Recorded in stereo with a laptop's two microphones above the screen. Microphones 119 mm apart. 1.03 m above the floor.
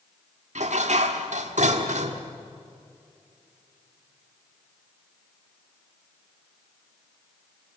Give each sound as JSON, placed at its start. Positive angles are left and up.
{"t": 0.6, "sound": "dishes clattering", "side_deg": -75, "distance_m": 1.8}